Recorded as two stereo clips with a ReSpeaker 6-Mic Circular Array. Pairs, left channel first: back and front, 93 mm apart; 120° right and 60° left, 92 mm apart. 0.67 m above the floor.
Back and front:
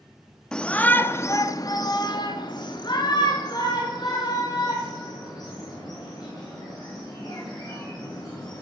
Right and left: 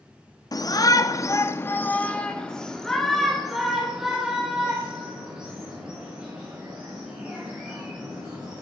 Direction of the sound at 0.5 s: 100° right.